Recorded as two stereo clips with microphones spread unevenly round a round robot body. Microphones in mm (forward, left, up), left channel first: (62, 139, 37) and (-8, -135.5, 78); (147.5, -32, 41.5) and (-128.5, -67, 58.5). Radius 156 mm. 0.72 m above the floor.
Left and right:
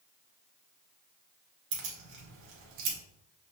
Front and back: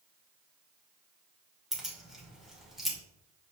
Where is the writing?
I don't hear writing.